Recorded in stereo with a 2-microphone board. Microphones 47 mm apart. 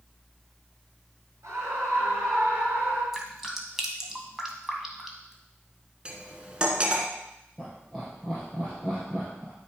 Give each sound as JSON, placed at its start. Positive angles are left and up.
{"t": 1.4, "sound": "a scream", "side_deg": -65, "distance_m": 4.0}
{"t": 3.1, "sound": "dripping", "side_deg": -5, "distance_m": 1.6}
{"t": 6.0, "sound": "cutlery clinking", "side_deg": -20, "distance_m": 1.4}
{"t": 7.6, "sound": "laughter", "side_deg": -15, "distance_m": 3.5}